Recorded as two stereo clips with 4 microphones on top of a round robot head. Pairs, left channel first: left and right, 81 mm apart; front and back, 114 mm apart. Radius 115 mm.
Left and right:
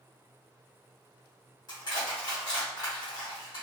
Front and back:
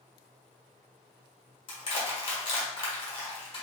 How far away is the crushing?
About 1.1 m.